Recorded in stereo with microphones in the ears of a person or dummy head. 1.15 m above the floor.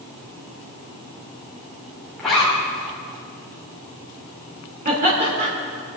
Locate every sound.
2.2 s a zipper: 5° left (ahead or behind), 3 m
4.8 s laughter: 45° right (ahead or behind), 3.5 m